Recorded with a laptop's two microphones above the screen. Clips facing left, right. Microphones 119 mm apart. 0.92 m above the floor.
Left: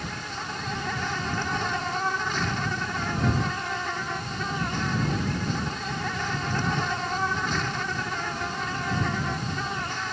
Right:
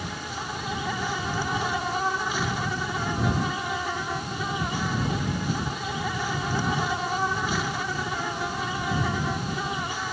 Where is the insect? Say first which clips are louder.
Right 1 dB; 10° right (ahead or behind).